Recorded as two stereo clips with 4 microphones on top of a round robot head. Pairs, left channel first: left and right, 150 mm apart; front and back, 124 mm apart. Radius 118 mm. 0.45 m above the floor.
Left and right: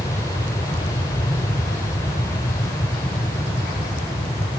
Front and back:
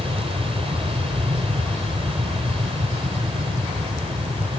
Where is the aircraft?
155° left.